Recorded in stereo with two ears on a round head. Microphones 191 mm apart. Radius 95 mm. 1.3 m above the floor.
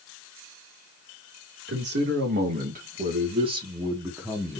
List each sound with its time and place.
1.7 s a man speaking: 55° right (ahead or behind), 2.5 m; by 4.6 s centre (ahead or behind), 1.6 m